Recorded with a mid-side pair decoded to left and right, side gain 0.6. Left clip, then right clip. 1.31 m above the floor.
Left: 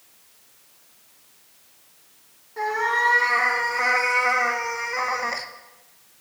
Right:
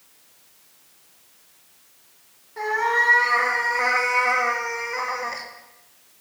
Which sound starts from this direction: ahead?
A cat meowing, at 2.6 s.